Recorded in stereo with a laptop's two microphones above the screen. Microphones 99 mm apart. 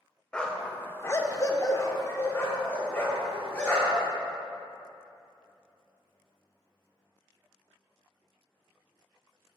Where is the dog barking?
10° left (ahead or behind), 0.8 m; by 4.1 s 20° left (ahead or behind), 2 m.